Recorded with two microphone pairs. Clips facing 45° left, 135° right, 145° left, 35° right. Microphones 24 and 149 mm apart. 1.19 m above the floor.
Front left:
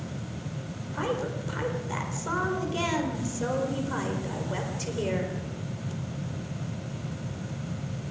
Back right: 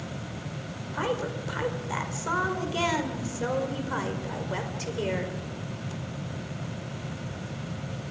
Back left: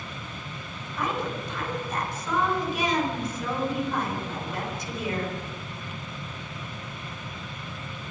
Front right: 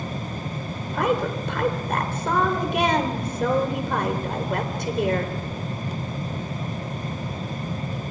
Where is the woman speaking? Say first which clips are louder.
Back right 1 dB, front right 7 dB; 55° right, 4 m.